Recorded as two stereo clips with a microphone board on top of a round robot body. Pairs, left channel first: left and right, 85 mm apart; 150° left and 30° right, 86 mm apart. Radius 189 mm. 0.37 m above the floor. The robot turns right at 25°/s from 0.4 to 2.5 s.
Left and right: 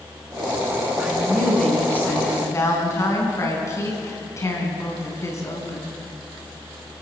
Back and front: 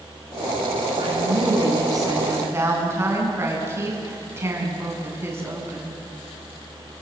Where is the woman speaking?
5° right, 5 m; by 6.0 s 30° left, 5 m.